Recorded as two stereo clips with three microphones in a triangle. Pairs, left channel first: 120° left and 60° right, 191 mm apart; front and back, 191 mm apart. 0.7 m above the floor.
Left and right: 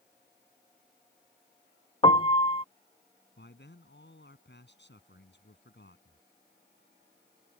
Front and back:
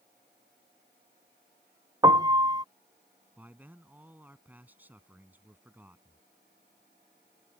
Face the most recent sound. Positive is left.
turn(degrees=100)